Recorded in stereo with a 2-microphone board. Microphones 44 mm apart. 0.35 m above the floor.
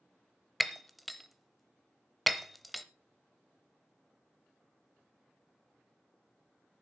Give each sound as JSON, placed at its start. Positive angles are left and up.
{"t": 0.6, "sound": "breaking glass", "side_deg": 0, "distance_m": 0.8}